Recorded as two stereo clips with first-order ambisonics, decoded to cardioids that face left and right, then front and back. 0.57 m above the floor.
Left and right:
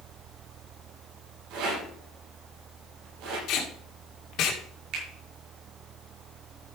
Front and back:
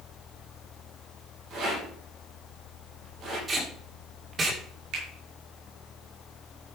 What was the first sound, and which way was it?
A rattle, 120° right.